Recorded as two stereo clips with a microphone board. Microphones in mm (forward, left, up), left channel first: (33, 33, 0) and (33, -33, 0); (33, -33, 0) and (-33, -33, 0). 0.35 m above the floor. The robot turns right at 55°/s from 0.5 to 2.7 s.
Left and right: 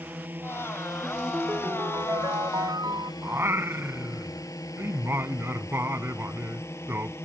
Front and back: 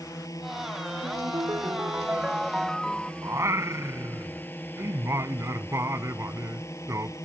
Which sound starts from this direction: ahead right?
A drone, at 0.0 s.